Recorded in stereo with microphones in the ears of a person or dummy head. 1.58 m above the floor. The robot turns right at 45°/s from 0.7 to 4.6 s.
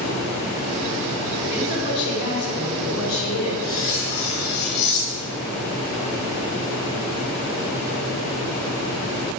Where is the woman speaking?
35° left, 5 m; by 3.5 s 130° left, 5 m.